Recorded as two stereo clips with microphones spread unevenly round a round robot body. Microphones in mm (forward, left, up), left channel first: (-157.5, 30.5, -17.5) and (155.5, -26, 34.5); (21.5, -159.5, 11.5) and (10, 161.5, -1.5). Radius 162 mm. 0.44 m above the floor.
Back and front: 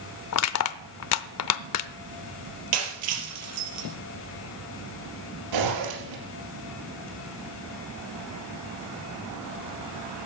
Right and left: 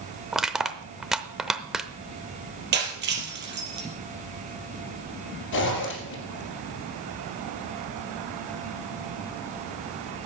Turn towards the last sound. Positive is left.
turn(degrees=-35)